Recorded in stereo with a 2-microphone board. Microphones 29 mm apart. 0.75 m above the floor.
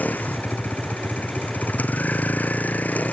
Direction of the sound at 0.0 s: 85° left.